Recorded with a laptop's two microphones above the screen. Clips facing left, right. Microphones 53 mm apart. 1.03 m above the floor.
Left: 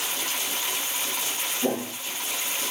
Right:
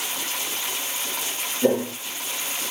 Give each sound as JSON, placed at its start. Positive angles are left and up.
{"t": 1.6, "sound": "footsteps", "side_deg": -55, "distance_m": 1.8}